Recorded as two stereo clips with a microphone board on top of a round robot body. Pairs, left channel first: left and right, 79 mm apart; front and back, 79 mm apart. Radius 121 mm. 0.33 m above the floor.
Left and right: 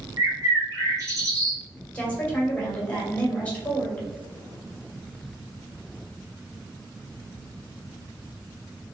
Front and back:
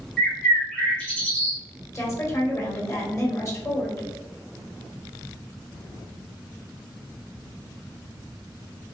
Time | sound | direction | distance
0.2 | a bird | 70° right | 1.8 m
1.9 | a woman speaking | 25° left | 1.7 m